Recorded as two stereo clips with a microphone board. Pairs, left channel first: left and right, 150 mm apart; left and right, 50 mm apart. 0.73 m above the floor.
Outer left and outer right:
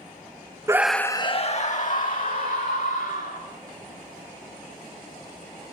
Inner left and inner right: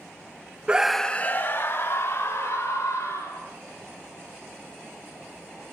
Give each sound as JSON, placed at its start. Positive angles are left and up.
{"t": 0.7, "sound": "a scream", "side_deg": -20, "distance_m": 0.8}